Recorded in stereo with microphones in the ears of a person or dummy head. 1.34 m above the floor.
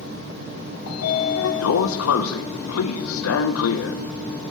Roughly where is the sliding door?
Left.